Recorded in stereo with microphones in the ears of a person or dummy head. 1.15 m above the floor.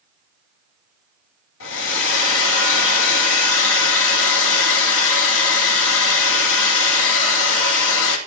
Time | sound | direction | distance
1.6 | a hair dryer | 75° left (ahead or behind) | 2.5 m